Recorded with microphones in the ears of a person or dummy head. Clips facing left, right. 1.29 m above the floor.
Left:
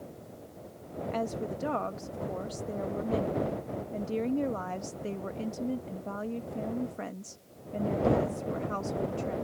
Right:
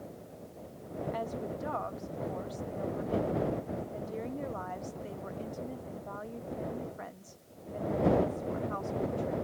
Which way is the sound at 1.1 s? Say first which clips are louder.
Left 5 dB; 45° left (ahead or behind).